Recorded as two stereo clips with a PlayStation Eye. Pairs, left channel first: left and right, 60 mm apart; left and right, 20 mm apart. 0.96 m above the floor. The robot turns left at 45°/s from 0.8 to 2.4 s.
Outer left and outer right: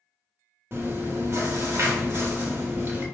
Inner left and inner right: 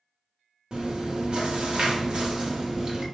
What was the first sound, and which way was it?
Chewing, 60° right.